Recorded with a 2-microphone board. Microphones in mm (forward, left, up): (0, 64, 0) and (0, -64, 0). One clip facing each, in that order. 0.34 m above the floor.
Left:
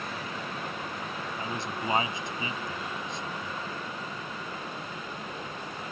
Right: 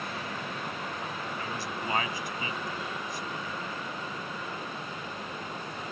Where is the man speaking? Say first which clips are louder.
Left 1 dB; 25° left (ahead or behind).